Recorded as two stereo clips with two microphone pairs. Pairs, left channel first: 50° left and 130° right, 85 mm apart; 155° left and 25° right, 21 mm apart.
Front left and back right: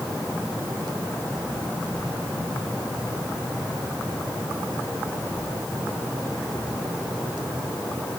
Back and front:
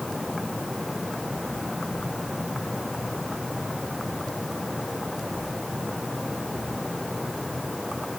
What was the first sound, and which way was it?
Only background noise.